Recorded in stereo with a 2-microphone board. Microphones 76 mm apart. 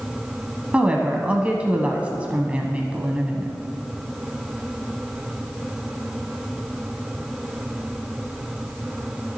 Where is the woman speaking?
15° right (ahead or behind), 1.0 m.